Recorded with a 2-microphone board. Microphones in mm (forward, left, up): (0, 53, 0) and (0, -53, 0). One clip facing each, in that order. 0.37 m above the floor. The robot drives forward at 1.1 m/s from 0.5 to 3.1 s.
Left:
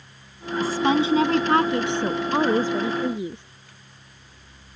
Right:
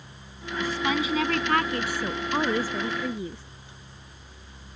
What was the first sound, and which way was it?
A woman speaking, 35° left (ahead or behind).